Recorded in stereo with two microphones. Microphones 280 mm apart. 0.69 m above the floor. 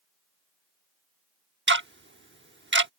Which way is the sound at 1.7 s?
40° right (ahead or behind).